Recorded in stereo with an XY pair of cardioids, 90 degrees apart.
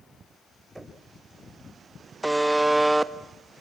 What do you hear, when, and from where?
0.8 s knocking: 15° right, 4.5 m
2.2 s a buzzer: 20° right, 1.2 m